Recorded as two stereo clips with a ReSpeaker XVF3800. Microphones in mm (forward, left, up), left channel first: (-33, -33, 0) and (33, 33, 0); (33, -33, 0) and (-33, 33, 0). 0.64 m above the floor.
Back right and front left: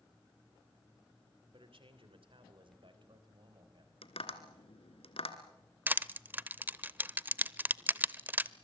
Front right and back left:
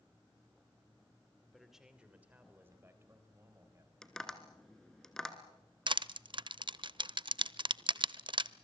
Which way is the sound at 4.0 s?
130° right.